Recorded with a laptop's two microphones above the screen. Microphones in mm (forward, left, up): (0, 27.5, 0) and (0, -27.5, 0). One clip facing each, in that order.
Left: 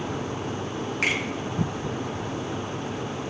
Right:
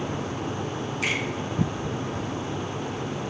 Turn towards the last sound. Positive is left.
turn(degrees=60)  # may be behind; listen again after turning